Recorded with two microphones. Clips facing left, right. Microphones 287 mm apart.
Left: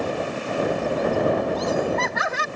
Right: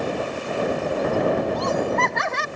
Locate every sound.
1.6 s laughter: 5° left (ahead or behind)